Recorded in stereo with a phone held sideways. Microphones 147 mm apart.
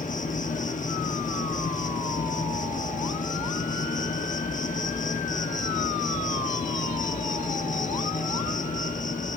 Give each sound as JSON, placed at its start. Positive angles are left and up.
{"t": 0.0, "sound": "an insect", "side_deg": 60, "distance_m": 1.2}